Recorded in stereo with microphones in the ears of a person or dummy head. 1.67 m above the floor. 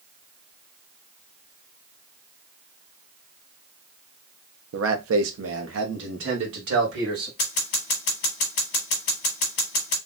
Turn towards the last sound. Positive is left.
turn(degrees=35)  # may be behind; listen again after turning